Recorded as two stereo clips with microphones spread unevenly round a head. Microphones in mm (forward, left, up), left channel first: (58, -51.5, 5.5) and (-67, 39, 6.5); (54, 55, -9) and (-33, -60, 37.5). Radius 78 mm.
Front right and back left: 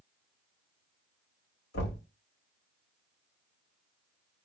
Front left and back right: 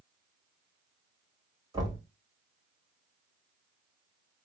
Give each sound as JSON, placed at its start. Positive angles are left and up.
{"t": 1.7, "sound": "knocking", "azimuth_deg": -65, "distance_m": 3.0}